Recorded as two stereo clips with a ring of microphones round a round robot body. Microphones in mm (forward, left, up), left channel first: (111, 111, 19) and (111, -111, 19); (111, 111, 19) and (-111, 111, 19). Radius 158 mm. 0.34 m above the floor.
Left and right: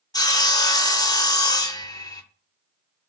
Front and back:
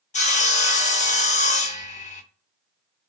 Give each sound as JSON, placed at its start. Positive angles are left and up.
{"t": 0.1, "sound": "sawing", "azimuth_deg": 30, "distance_m": 0.7}